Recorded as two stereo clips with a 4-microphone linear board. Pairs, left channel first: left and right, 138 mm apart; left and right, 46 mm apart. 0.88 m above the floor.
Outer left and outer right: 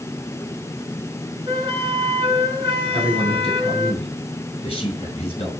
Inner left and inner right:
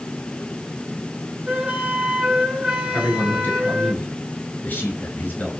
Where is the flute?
35° right (ahead or behind), 1.8 m.